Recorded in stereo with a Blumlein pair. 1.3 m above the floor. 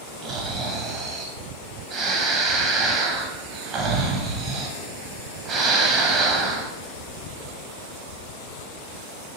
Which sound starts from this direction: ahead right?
Snoring, at 0.2 s.